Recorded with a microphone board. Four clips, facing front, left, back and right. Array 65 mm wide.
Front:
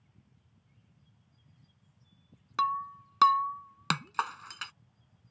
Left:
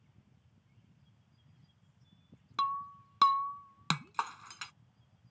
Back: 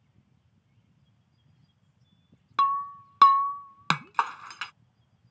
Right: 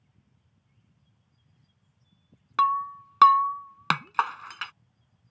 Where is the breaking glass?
120° right.